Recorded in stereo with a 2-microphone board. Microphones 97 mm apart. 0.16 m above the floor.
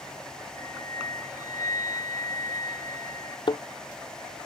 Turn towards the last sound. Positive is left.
turn(degrees=60)  # may be behind; listen again after turning